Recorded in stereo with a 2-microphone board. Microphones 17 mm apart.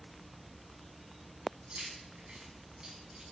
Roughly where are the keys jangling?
Right.